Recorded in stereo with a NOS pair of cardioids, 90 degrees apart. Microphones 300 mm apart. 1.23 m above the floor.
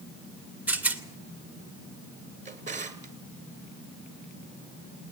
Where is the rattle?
5° right, 2 m.